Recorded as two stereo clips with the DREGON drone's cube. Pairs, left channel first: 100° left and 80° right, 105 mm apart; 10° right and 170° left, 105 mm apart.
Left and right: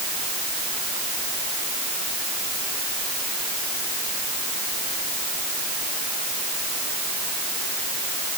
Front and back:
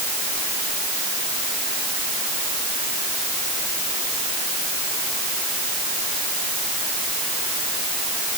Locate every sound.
Only background noise.